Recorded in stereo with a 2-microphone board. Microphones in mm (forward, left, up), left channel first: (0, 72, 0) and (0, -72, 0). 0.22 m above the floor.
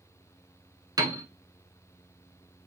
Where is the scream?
No scream in this recording.